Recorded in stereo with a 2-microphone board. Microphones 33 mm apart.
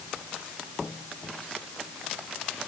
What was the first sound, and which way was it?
Only background noise.